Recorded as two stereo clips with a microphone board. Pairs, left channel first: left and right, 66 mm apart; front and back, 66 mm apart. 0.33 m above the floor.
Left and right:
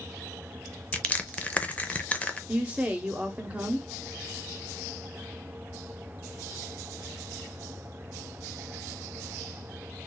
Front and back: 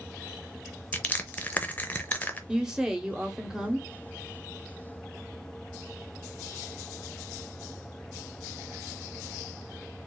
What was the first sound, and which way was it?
Crushing, 40° left.